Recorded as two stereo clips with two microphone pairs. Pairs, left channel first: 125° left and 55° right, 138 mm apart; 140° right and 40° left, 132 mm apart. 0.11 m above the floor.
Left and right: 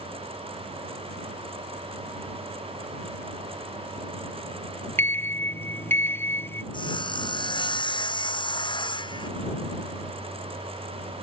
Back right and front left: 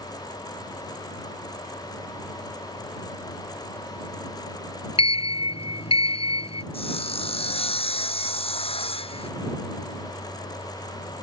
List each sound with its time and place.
5.0 s a sliding door: 170° right
6.7 s sawing: 175° left